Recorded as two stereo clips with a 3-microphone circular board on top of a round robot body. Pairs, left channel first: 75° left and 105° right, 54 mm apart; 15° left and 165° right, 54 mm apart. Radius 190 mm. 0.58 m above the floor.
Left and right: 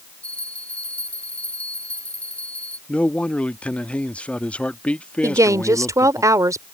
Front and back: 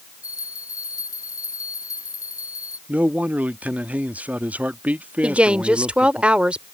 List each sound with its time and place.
0.2 s a bell: 10° left
2.9 s a man speaking: 135° left
5.2 s a woman speaking: 95° right